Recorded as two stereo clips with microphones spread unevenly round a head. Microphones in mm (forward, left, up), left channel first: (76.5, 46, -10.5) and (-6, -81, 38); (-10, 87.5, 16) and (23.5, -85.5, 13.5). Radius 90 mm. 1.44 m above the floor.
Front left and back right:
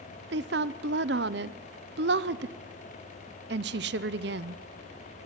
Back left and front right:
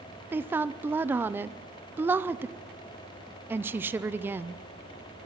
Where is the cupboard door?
I don't hear a cupboard door.